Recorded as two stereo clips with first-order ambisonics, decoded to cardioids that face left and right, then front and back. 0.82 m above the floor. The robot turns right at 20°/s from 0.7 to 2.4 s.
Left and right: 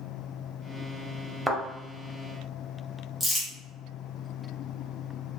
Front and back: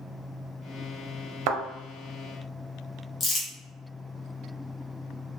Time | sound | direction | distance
1.5 | a thud | 175° right | 0.7 m
3.2 | crumpling | 10° left | 0.8 m